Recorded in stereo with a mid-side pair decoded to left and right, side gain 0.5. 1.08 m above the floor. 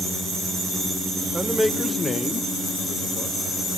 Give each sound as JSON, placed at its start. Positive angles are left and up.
{"t": 1.3, "sound": "a man speaking", "azimuth_deg": -15, "distance_m": 0.8}